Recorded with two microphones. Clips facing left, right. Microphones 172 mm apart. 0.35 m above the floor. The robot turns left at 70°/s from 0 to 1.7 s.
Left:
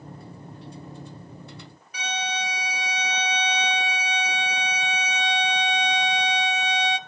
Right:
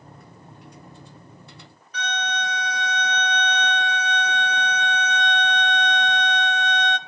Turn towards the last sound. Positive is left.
turn(degrees=10)  # may be behind; listen again after turning